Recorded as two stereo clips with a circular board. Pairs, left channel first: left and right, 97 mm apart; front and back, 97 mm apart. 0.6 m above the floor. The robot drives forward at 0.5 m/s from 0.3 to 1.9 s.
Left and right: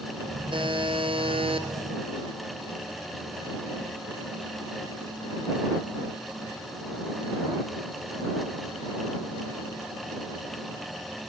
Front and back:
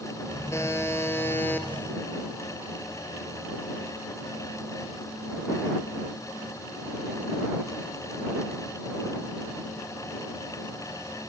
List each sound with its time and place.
0.5 s a buzzer: 60° right, 3.5 m; by 1.7 s 70° right, 3.5 m